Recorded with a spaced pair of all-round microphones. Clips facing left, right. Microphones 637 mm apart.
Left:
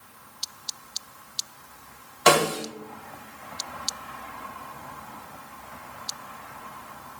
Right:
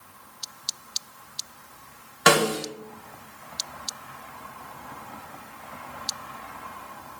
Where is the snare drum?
45° right (ahead or behind), 1.0 m.